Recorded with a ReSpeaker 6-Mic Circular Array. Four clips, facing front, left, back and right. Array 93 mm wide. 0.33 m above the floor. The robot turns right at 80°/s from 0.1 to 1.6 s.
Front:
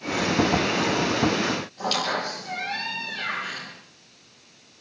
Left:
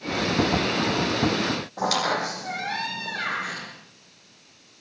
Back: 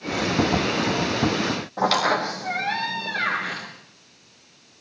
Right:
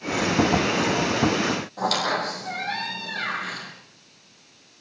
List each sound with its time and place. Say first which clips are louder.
1.8 s a squeak: left 1 dB, back 9 dB; 170° left, 7.5 m